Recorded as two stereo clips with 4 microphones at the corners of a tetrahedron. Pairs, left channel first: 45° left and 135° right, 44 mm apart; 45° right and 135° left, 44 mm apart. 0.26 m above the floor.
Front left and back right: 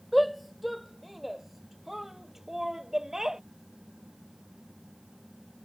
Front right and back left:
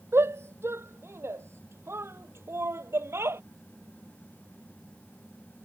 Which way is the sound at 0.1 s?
135° left.